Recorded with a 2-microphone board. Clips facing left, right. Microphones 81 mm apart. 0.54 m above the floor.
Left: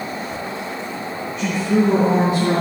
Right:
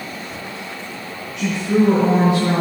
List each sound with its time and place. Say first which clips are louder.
1.4 s a woman speaking: right 1 dB; 75° right (ahead or behind), 6 m; by 2.6 s 65° right (ahead or behind), 6 m